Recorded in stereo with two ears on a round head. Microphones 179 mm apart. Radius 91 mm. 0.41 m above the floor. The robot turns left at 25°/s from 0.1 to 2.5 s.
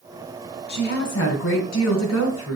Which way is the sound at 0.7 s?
125° left.